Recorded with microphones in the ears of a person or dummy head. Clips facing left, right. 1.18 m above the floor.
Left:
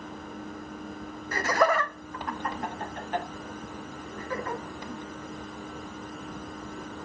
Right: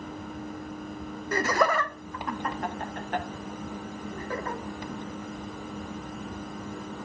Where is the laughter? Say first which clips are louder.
Even; 75° right (ahead or behind), 0.8 m; by 4.6 s 30° right (ahead or behind), 2 m.